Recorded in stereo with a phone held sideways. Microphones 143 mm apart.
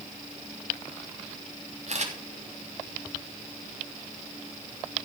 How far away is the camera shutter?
About 3 m.